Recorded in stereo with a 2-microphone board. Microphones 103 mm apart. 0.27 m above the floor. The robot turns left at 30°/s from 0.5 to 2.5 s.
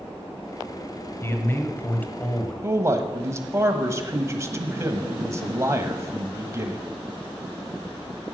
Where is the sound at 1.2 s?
60° left, 1.1 m; by 2.5 s 20° left, 1.1 m.